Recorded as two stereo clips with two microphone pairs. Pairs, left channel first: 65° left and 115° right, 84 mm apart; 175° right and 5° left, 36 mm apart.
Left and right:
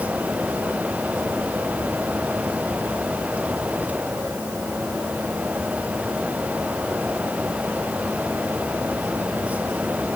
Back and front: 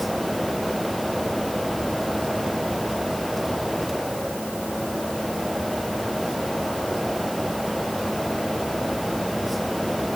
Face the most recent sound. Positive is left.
No sound to turn to.